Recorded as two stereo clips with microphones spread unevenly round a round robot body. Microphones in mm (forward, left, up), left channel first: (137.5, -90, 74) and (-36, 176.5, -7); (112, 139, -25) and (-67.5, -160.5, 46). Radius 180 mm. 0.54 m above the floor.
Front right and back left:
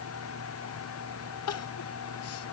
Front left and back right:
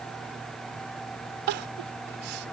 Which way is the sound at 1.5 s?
110° right.